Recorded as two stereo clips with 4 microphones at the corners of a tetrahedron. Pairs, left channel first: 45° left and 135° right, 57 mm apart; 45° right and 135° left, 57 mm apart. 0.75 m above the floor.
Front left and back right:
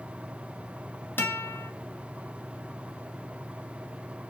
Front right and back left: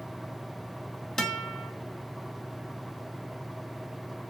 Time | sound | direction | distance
1.2 | a guitar | 30° left | 1.0 m